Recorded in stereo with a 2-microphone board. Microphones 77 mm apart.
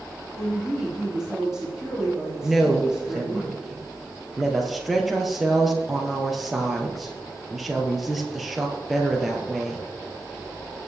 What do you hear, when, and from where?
0.4 s a woman speaking: 10° right (ahead or behind), 5 m
2.4 s a woman speaking: centre (ahead or behind), 2.5 m